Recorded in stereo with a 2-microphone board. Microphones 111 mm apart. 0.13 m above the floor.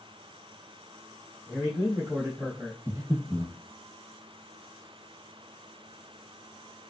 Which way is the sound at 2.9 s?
25° right (ahead or behind).